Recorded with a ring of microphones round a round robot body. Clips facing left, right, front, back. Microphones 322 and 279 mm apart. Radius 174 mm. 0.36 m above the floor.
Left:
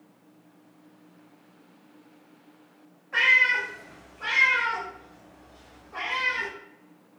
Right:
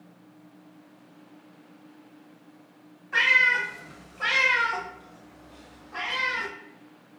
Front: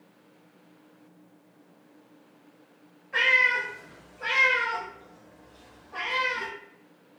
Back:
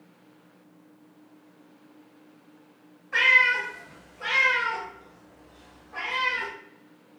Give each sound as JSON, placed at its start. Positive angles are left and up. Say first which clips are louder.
{"t": 3.1, "sound": "a cat meowing", "louder": "right 1 dB, front 1 dB", "azimuth_deg": -150, "distance_m": 0.9}